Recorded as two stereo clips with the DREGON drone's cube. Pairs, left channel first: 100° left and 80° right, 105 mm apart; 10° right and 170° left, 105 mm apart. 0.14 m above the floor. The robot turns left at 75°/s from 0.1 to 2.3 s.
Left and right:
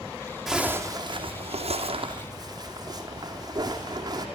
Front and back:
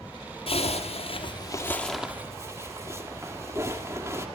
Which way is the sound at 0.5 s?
10° left.